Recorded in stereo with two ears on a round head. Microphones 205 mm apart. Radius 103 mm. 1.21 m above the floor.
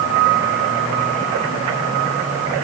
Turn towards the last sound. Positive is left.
No sound to turn to.